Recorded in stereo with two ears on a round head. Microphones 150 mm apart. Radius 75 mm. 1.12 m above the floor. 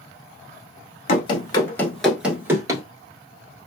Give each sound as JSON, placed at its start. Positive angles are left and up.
{"t": 1.1, "sound": "running footsteps", "side_deg": 35, "distance_m": 1.3}